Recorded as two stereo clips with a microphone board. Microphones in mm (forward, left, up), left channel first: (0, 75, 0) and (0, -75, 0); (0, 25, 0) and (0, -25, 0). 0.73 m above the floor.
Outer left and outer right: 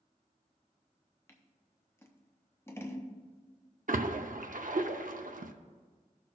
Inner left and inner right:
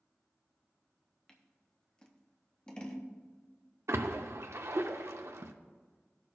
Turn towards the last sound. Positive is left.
turn(degrees=-70)  # may be behind; listen again after turning